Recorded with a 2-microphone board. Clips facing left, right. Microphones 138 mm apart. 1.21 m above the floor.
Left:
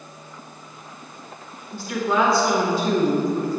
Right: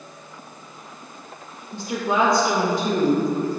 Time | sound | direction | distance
1.7 | a woman speaking | 20° right (ahead or behind) | 1.0 m